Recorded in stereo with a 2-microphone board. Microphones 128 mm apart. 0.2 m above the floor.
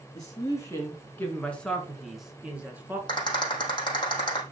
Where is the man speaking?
30° left (ahead or behind), 2.5 m; by 3.0 s 15° right (ahead or behind), 2.5 m.